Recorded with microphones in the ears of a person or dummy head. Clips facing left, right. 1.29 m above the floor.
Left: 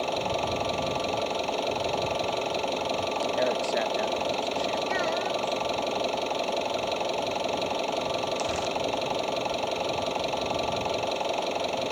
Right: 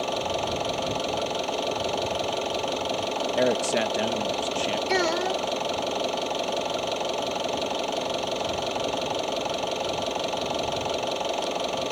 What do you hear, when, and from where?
0.0 s an engine running: 5° right (ahead or behind)
3.4 s a man speaking: 35° right (ahead or behind)
4.9 s a child speaking: 65° right (ahead or behind)